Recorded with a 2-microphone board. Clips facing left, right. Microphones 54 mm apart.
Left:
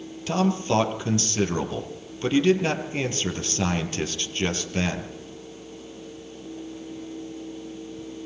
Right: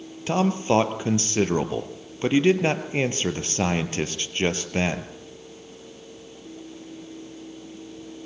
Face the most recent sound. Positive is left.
turn(degrees=-30)  # may be behind; listen again after turning